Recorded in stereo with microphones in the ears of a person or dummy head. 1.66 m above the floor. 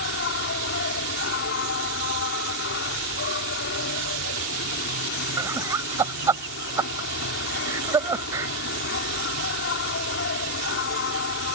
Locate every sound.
0.0 s an insect: 50° left (ahead or behind)
5.4 s laughter: 25° right (ahead or behind)